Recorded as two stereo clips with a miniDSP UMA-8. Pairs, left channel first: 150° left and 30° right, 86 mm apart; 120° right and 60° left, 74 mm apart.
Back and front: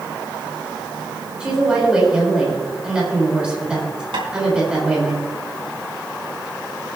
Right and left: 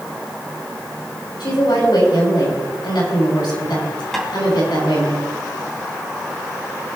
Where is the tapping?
35° right, 4 m.